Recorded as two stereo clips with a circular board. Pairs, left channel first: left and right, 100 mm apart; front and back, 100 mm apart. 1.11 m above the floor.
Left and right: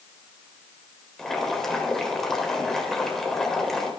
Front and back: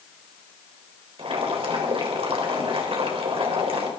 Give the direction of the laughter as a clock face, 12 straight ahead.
No laughter in this recording.